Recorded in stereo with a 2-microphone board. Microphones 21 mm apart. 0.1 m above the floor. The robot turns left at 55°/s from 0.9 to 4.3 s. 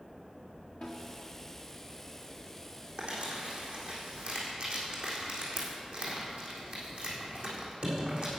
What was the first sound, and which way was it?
A snare drum, 70° left (ahead or behind).